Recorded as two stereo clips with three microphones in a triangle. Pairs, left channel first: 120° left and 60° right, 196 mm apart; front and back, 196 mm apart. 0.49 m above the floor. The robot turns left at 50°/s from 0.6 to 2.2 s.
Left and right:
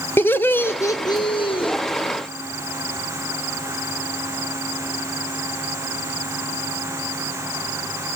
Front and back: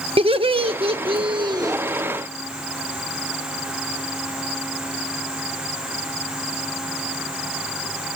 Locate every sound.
0.2 s laughter: 175° right, 1.0 m; by 1.8 s 130° left, 1.0 m